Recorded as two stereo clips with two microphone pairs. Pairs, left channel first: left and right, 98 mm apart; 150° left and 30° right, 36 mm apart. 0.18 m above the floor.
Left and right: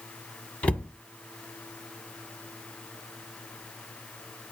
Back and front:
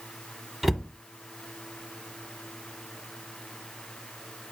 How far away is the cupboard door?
About 0.7 m.